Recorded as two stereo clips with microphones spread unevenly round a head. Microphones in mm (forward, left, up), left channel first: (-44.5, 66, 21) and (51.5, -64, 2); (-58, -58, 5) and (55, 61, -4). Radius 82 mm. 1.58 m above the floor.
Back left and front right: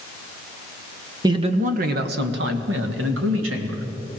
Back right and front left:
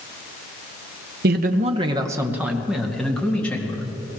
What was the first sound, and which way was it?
A man speaking, 15° left.